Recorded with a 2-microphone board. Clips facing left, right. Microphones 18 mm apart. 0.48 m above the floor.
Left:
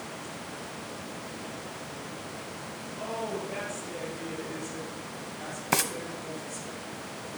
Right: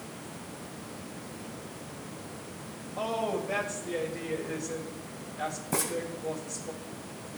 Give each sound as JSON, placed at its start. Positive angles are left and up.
{"t": 3.0, "sound": "a woman speaking", "side_deg": -65, "distance_m": 2.0}
{"t": 5.7, "sound": "frying", "side_deg": 50, "distance_m": 0.8}